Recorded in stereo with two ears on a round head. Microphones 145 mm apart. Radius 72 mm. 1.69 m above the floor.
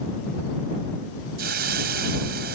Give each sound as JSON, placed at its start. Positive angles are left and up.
{"t": 1.4, "sound": "a hiss", "side_deg": -70}